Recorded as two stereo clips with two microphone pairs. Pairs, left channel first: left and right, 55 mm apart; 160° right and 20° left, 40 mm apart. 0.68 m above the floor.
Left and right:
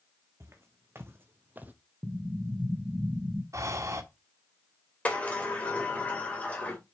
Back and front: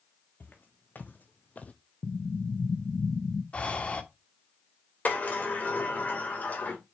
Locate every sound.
0.4 s footsteps: 130° right, 1.9 m; by 1.7 s 140° right, 0.9 m
2.0 s an explosion: 150° right, 0.6 m
3.5 s breathing: 105° right, 1.2 m
5.0 s a sliding door: 150° left, 2.5 m